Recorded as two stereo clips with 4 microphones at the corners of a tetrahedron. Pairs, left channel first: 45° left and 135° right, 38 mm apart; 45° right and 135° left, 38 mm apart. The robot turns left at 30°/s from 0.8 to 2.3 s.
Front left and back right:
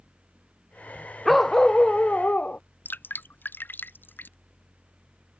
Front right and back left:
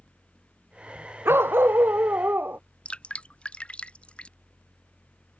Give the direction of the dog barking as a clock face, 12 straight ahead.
8 o'clock.